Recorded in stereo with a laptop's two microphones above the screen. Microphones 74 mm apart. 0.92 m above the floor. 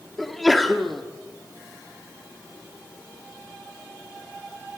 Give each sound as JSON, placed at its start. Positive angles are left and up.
{"t": 0.2, "sound": "a sneeze", "side_deg": 0, "distance_m": 1.6}